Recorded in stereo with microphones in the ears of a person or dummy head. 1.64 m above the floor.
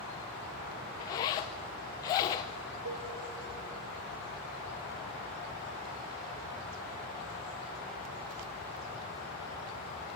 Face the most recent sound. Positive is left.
turn(degrees=-70)  # may be behind; listen again after turning